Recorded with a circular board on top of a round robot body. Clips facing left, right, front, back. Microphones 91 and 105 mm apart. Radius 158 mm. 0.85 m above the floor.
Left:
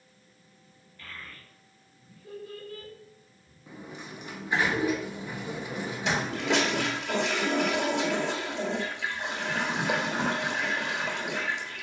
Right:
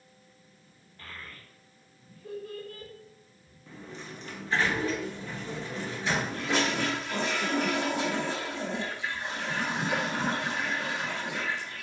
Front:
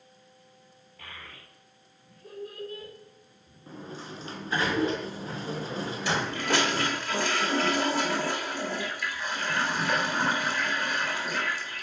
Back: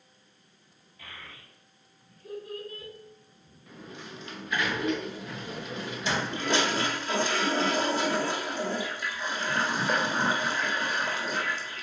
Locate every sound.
1.0 s a child speaking: 35° right, 2.5 m; by 2.9 s 50° right, 4 m
3.7 s a sliding door: 25° left, 1.1 m
6.0 s a toilet flushing: 110° left, 2.5 m